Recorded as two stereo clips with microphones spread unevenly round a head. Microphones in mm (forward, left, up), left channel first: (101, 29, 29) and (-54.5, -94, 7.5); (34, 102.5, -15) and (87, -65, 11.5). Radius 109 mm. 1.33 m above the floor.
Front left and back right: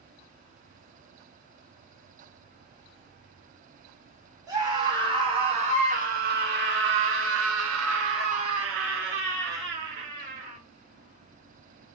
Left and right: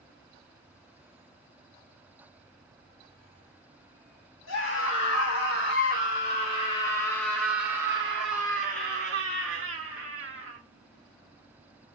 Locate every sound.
4.5 s a scream: 145° left, 2.5 m; by 10.6 s 100° right, 2.5 m